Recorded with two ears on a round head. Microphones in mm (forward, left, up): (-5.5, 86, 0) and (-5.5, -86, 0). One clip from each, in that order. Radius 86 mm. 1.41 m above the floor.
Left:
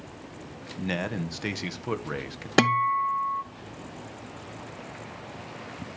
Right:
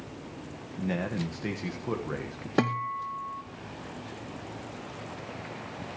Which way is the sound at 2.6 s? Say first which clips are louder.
Left 7 dB; 60° left (ahead or behind).